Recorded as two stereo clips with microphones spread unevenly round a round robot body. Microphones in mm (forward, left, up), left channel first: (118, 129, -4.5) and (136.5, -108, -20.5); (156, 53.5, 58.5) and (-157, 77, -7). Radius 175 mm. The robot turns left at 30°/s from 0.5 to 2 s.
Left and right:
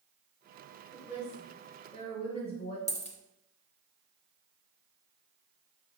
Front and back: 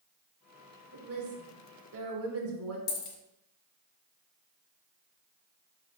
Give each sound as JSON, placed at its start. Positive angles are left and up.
{"t": 0.9, "sound": "a woman speaking", "azimuth_deg": -165, "distance_m": 1.2}
{"t": 2.9, "sound": "a dropped coin", "azimuth_deg": 30, "distance_m": 0.9}